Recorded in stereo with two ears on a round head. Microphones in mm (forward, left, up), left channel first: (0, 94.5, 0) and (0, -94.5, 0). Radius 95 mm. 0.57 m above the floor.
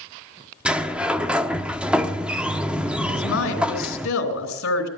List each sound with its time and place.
0.7 s a sliding door: 5° right (ahead or behind), 0.7 m
3.1 s a woman speaking: 70° left (ahead or behind), 3 m